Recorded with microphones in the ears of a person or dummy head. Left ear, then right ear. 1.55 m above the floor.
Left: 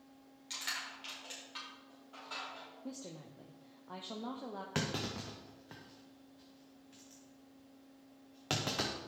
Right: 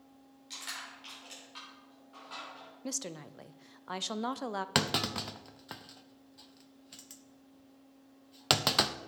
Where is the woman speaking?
65° right (ahead or behind), 0.5 m.